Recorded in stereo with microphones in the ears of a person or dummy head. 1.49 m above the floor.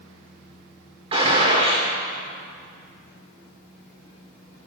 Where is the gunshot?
30° right (ahead or behind), 1.3 m.